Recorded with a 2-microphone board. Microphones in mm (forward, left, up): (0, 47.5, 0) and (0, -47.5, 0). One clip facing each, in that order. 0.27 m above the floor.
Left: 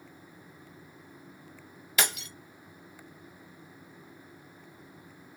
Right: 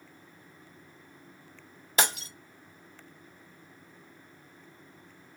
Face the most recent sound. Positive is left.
turn(degrees=-30)  # may be behind; listen again after turning